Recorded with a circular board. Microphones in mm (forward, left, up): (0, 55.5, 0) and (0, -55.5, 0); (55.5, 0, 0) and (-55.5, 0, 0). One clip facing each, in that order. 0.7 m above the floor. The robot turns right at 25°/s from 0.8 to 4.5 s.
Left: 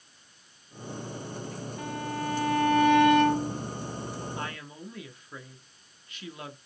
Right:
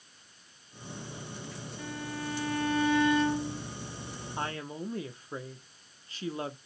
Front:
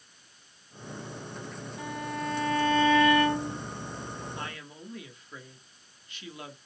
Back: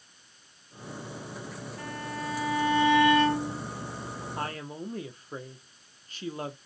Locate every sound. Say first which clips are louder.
1.8 s a violin: left 5 dB, front 3 dB; 80° left, 2 m; by 3.6 s 125° left, 2 m
4.4 s a woman speaking: right 2 dB, back 5 dB; 140° right, 1.3 m